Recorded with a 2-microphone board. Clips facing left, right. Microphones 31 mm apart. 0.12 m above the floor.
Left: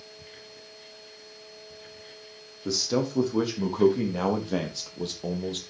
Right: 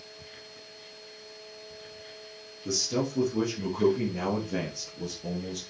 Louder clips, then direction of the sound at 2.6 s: Left 3 dB; 55° left (ahead or behind).